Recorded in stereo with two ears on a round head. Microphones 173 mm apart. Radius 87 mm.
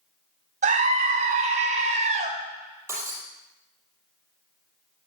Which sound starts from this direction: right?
A scream, at 0.6 s.